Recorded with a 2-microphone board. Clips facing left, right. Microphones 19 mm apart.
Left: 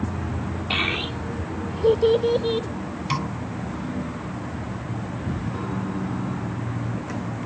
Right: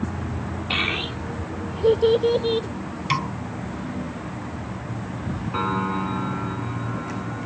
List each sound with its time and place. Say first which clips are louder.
0.7 s a child speaking: even; centre (ahead or behind); by 2.7 s 10° right (ahead or behind)
3.1 s a snare drum: right 3 dB; 20° right (ahead or behind)
5.5 s a piano: right 5 dB; 65° right (ahead or behind)